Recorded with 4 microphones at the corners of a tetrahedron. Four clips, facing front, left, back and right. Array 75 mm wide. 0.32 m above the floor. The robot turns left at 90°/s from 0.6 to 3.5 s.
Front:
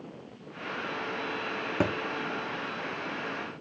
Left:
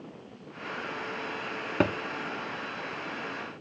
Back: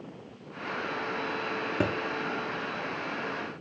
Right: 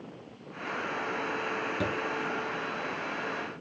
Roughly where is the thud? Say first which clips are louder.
Left 8 dB, front 1 dB; left.